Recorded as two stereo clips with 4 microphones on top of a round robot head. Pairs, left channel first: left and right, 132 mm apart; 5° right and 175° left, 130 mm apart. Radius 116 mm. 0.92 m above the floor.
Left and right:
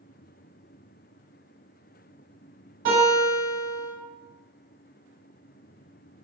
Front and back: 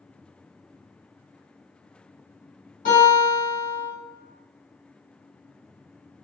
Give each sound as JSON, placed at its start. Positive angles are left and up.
{"t": 2.9, "sound": "a guitar", "azimuth_deg": -45, "distance_m": 1.9}